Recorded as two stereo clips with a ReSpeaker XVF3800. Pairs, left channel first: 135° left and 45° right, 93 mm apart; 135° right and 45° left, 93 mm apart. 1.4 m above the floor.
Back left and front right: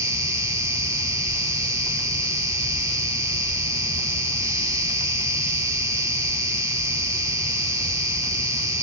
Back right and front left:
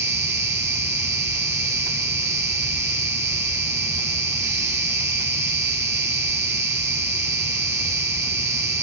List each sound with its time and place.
0.0 s an insect: 5° right, 1.2 m